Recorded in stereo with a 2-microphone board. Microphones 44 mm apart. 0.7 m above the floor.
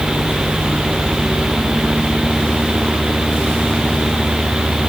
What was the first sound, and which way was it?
Only background noise.